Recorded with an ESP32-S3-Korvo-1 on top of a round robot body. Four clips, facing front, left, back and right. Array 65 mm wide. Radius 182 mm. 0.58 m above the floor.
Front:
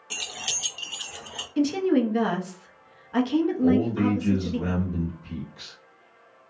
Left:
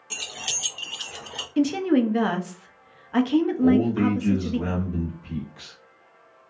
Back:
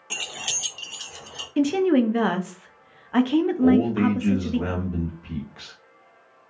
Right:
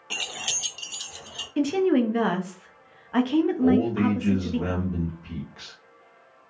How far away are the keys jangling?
About 0.6 m.